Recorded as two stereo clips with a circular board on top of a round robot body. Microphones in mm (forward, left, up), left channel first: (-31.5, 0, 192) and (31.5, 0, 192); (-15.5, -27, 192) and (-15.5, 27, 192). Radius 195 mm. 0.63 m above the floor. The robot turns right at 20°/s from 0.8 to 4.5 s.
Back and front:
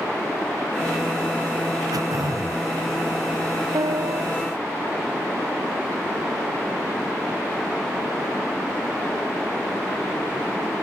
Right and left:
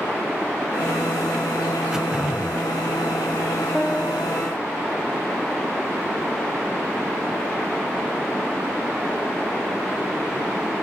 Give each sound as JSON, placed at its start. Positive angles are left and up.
{"t": 1.9, "sound": "throat clearing", "azimuth_deg": 10}
{"t": 3.7, "sound": "a piano", "azimuth_deg": -10}